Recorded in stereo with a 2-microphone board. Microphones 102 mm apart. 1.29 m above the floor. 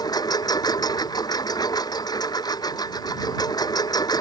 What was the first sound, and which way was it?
A lawn mower, 40° left (ahead or behind).